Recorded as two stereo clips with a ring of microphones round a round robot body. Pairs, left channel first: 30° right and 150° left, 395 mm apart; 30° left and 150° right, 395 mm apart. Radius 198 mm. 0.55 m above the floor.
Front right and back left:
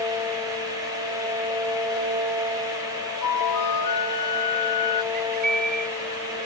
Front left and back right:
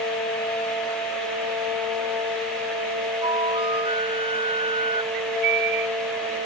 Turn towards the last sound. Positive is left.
turn(degrees=-140)